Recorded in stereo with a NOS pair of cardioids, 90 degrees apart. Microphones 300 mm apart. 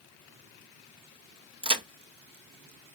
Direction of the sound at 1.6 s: 15° right.